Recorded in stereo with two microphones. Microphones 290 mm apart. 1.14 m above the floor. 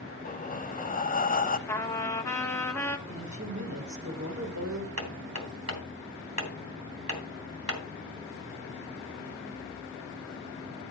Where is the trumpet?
10° left (ahead or behind), 1.5 m.